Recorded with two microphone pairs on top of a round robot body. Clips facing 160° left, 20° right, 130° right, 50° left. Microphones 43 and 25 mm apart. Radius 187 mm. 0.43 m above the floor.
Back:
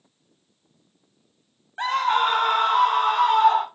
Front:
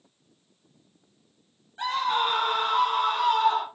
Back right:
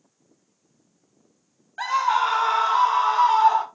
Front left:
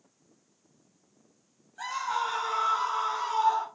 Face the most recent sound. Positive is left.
turn(degrees=-160)